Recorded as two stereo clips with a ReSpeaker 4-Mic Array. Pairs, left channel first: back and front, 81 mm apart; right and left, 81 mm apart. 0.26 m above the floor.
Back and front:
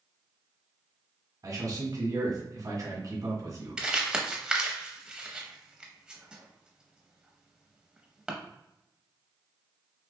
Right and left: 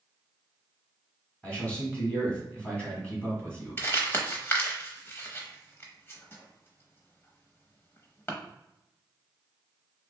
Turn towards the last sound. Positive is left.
turn(degrees=-70)